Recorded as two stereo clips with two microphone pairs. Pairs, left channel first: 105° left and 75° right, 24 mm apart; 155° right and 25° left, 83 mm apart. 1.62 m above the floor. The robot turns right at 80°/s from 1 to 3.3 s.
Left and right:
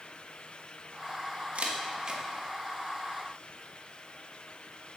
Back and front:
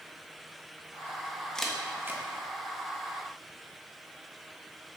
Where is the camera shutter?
75° right, 1.3 m; by 2.2 s 20° right, 1.3 m.